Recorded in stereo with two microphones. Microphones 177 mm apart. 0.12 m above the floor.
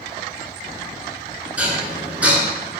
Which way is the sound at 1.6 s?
10° right (ahead or behind).